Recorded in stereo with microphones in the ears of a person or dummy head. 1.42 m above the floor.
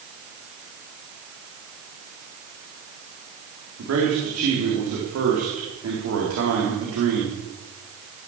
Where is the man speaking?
90° right, 3.5 m.